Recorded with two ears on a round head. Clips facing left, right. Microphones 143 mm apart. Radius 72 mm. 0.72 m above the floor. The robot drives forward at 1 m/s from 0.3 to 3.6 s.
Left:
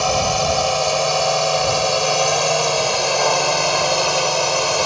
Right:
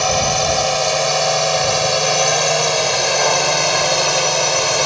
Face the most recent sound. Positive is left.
turn(degrees=0)  # may be behind; listen again after turning